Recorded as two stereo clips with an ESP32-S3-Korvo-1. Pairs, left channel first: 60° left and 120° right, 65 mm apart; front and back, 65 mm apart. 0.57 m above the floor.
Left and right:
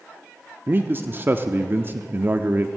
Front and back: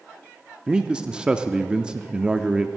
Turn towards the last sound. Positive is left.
turn(degrees=-115)